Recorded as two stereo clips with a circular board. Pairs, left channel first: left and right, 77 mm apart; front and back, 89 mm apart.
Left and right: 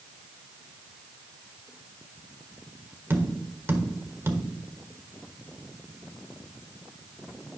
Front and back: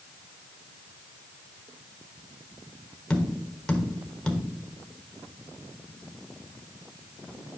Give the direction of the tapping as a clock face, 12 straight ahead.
2 o'clock.